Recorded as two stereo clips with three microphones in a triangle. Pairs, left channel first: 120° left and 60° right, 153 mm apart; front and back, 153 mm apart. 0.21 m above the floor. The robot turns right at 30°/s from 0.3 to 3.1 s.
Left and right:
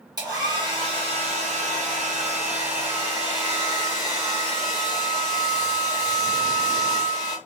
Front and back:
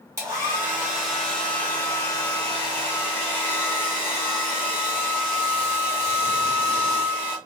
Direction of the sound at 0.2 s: 115° right.